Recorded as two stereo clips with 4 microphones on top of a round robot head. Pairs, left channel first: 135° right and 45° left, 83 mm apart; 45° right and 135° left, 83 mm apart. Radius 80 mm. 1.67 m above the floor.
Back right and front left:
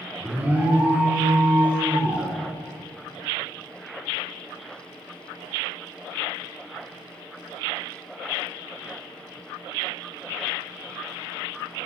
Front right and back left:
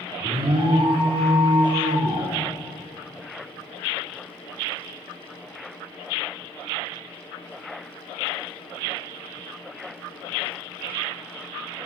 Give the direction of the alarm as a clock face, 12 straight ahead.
8 o'clock.